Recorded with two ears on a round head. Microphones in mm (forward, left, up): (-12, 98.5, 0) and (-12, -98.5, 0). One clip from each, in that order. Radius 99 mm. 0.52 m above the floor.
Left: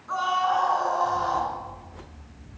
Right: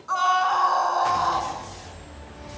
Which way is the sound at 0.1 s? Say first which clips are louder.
Right 3 dB; 60° right (ahead or behind).